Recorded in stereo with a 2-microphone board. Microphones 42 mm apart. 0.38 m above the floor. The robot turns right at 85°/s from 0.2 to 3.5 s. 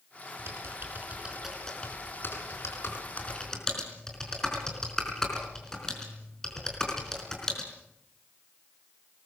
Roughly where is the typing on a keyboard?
Right.